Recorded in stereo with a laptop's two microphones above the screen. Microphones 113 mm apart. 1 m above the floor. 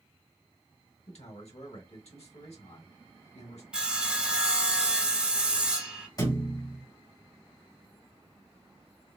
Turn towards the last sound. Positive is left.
turn(degrees=35)  # may be behind; listen again after turning